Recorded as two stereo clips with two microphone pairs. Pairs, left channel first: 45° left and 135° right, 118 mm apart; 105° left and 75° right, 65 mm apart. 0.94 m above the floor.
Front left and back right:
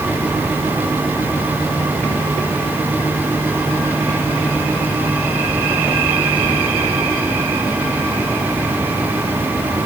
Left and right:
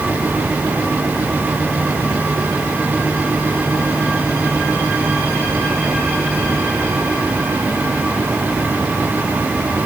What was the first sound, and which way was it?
Only background noise.